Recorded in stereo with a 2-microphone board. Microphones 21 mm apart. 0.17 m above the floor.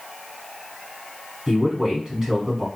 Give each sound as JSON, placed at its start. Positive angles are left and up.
{"t": 1.5, "sound": "a man speaking", "side_deg": -25, "distance_m": 1.2}